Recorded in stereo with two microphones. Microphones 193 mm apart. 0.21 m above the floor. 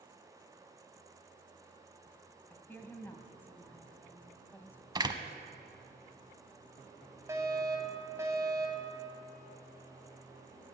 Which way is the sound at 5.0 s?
20° right (ahead or behind).